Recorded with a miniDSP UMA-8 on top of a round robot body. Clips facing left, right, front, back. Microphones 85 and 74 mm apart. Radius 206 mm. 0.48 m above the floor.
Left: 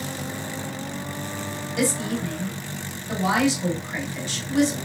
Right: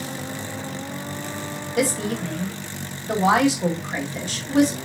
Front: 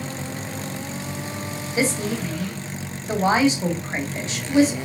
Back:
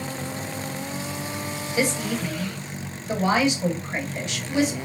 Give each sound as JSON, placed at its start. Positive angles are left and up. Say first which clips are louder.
{"t": 1.8, "sound": "a woman speaking", "louder": "right 2 dB, front 2 dB", "azimuth_deg": -55, "distance_m": 1.8}